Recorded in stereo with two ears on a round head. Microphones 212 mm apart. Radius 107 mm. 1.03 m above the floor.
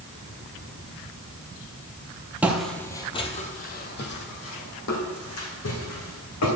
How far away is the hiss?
I don't hear a hiss.